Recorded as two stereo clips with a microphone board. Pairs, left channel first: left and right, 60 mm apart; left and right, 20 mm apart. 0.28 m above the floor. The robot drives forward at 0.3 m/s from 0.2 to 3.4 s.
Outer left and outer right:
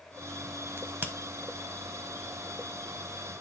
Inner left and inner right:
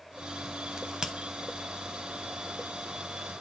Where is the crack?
40° right (ahead or behind), 1.0 m.